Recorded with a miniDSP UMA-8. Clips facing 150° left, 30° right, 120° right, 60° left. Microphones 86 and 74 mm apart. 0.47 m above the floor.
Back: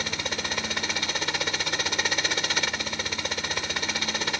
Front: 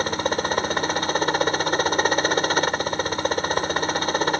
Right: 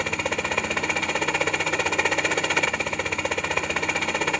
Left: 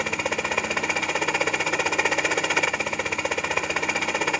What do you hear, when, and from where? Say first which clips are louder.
0.0 s a helicopter: front 9 dB, even; 25° right